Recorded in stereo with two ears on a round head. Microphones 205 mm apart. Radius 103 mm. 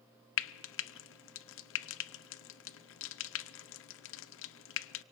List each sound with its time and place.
0.4 s frying: 60° left (ahead or behind), 0.5 m